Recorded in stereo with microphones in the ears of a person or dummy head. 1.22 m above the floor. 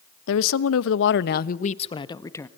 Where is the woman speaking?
80° left, 1.0 m; by 2.5 s 10° left (ahead or behind), 1.2 m.